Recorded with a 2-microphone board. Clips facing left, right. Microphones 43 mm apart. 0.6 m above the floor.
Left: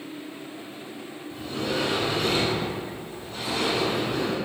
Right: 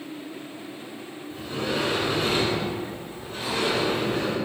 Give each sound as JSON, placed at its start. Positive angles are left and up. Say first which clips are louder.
{"t": 1.3, "sound": "a sliding door", "louder": "even", "side_deg": -30, "distance_m": 1.6}